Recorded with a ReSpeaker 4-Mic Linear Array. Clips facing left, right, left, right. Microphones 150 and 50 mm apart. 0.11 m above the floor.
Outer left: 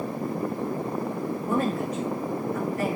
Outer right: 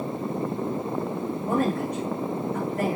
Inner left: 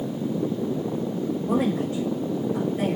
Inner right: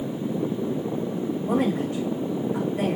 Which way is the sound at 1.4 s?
50° right (ahead or behind).